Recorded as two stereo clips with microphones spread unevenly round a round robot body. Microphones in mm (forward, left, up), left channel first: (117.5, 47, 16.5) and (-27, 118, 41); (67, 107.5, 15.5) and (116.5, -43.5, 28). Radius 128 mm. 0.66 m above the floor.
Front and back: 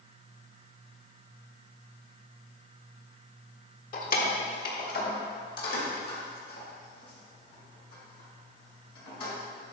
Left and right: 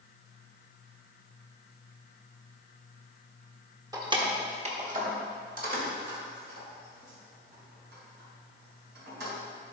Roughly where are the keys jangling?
Ahead.